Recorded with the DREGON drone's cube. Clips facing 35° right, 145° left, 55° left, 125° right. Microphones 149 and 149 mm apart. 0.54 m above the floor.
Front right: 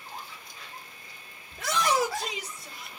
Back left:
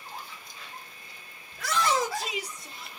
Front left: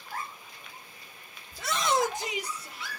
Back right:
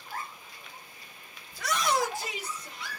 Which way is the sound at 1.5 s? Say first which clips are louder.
Even, front left 1 dB; 10° left.